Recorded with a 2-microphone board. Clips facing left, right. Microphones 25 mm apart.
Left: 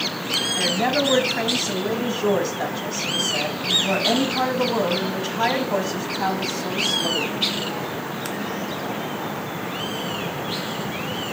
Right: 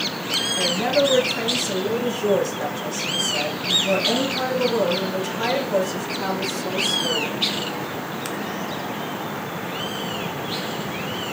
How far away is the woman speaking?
About 1.8 m.